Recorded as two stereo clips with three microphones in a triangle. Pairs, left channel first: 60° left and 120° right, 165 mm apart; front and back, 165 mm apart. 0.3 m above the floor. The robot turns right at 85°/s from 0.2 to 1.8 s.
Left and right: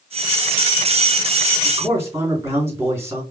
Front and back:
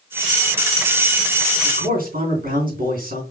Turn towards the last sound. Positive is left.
turn(degrees=170)